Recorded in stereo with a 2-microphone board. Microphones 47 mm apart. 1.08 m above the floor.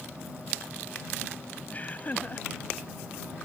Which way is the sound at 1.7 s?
30° left (ahead or behind).